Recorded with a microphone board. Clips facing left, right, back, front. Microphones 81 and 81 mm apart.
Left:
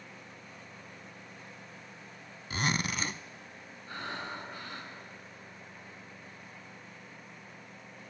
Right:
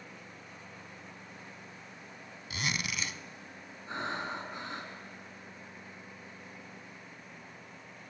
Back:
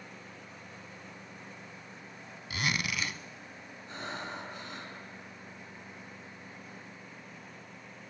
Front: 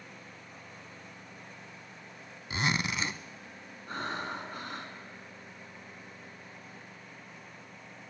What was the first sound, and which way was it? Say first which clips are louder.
A zipper: left 4 dB, front 2 dB; 55° left.